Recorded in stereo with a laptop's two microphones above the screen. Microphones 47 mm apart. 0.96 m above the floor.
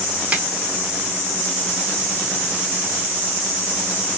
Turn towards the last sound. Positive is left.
turn(degrees=-25)  # may be behind; listen again after turning